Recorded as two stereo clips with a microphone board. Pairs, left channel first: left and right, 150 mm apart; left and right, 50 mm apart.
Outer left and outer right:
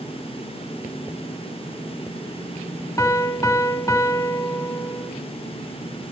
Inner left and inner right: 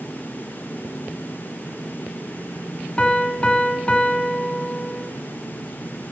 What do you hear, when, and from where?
3.0 s a piano: 20° left (ahead or behind), 0.8 m